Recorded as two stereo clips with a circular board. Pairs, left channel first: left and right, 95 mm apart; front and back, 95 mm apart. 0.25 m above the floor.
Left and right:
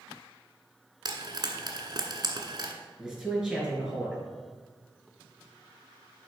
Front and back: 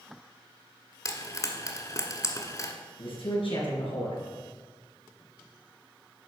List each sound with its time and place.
1.1 s frying: 50° right, 1.3 m
3.0 s a man speaking: 5° right, 4 m